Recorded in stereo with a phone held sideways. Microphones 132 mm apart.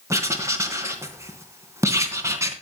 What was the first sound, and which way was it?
Writing, 20° right (ahead or behind).